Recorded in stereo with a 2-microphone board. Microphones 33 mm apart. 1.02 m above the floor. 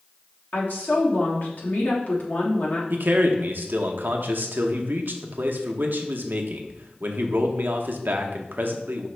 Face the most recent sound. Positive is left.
turn(degrees=-75)  # may be behind; listen again after turning